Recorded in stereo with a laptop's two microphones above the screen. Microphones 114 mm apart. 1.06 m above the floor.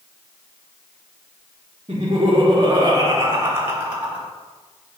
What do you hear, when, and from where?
1.9 s laughter: 50° right (ahead or behind), 0.8 m; by 4.3 s 10° right (ahead or behind), 1.4 m